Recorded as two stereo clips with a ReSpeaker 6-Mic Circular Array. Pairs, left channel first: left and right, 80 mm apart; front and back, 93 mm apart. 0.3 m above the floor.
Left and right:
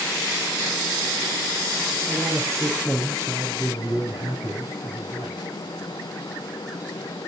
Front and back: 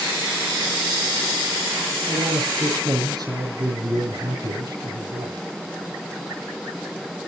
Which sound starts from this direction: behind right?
A man speaking, at 2.0 s.